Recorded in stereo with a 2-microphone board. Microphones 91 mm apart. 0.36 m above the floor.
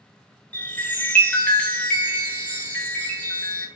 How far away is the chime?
About 0.6 m.